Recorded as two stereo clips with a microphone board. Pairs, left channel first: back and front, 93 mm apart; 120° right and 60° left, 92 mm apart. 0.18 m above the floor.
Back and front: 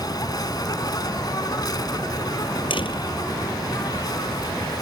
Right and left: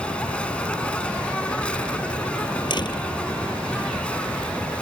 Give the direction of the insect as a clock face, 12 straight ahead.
6 o'clock.